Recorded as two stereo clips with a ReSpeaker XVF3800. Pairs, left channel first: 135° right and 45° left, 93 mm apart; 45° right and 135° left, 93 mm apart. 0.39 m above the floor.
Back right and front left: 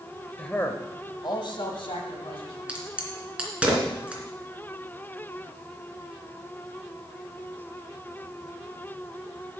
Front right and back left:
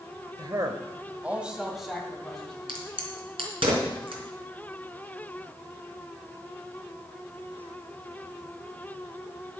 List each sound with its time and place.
0.4 s a man speaking: 150° left, 1.5 m; by 2.6 s 130° right, 3.5 m
2.7 s a crack: 125° left, 3 m